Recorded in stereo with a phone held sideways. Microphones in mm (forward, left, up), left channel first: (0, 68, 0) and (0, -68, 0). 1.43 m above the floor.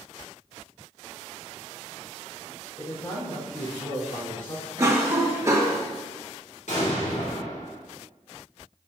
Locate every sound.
2.8 s a man speaking: 40° left (ahead or behind), 4.5 m
4.8 s a cough: 25° right (ahead or behind), 1.7 m
6.7 s an explosion: 70° left (ahead or behind), 2.5 m